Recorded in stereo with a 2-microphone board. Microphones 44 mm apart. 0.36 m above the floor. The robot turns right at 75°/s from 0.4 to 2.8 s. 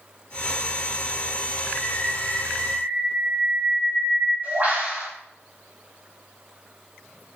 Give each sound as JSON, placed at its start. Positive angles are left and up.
{"t": 1.8, "sound": "a bird", "azimuth_deg": 140, "distance_m": 3.5}